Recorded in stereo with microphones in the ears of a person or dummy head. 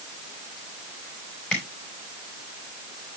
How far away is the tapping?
About 3.5 m.